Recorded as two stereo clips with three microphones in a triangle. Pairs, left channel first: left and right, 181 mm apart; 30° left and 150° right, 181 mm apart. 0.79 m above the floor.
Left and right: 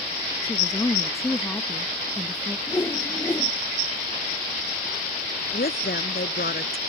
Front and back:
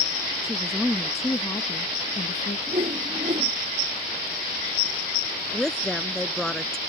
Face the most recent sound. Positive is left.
turn(degrees=115)